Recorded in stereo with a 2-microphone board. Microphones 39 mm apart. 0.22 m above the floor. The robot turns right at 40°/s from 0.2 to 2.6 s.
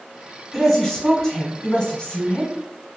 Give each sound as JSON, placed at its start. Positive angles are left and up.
{"t": 0.5, "sound": "a woman speaking", "side_deg": 0, "distance_m": 1.1}